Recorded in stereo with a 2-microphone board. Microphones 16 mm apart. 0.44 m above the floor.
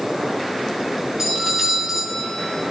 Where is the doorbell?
35° right (ahead or behind), 6.5 m.